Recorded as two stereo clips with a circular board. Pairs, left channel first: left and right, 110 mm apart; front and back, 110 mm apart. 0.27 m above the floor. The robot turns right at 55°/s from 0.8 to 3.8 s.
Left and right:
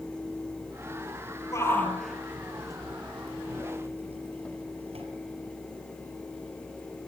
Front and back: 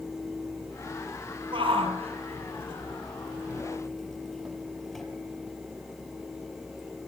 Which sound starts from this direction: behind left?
A shout, at 1.5 s.